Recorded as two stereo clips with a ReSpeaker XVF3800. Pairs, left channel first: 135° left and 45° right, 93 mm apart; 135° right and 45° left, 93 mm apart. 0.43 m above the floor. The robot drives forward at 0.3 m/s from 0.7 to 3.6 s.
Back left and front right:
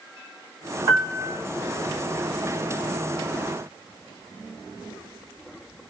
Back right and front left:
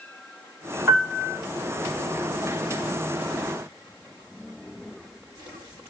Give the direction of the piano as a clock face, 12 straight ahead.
1 o'clock.